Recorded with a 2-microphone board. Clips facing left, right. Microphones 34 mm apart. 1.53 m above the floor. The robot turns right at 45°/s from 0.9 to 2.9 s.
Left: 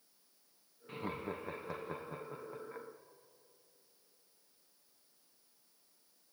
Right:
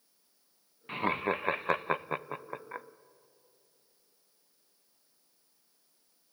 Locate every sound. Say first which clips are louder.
0.9 s laughter: right 11 dB; 50° right (ahead or behind), 0.6 m; by 2.9 s 35° right (ahead or behind), 0.6 m